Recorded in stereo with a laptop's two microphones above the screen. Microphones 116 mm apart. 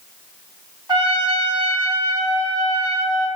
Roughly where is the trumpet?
Right.